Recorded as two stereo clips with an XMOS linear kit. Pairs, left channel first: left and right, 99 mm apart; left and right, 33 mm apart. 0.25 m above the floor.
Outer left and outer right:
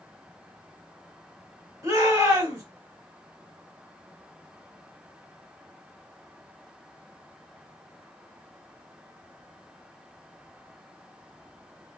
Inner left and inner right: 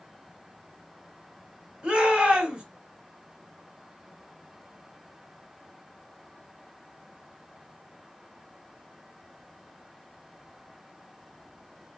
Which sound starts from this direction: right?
A shout, at 1.8 s.